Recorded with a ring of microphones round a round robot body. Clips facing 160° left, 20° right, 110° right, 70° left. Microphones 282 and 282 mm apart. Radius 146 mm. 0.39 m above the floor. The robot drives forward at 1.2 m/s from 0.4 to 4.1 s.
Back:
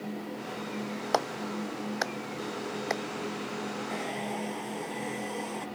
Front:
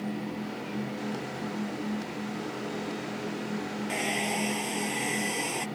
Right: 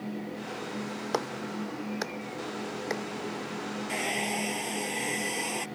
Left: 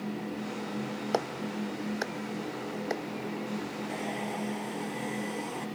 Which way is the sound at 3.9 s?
65° right.